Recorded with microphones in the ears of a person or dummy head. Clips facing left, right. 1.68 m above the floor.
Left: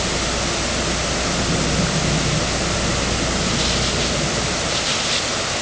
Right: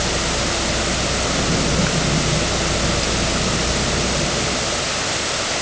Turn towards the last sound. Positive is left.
No sound to turn to.